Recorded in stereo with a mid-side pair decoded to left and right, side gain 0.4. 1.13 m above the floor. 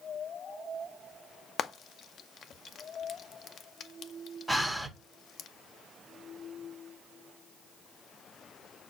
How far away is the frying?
About 0.5 m.